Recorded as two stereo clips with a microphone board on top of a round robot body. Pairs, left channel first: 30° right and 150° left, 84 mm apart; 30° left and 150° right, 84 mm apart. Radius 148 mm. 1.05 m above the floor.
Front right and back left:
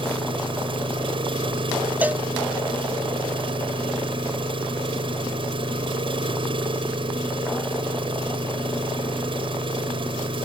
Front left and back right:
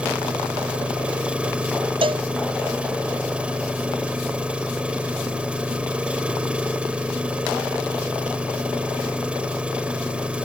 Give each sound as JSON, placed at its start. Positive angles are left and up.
{"t": 0.0, "sound": "an engine running", "azimuth_deg": 130}
{"t": 2.0, "sound": "a cowbell", "azimuth_deg": -140}